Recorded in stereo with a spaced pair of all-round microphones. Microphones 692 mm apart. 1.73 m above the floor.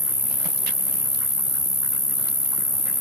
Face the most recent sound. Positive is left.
turn(degrees=30)  # may be behind; listen again after turning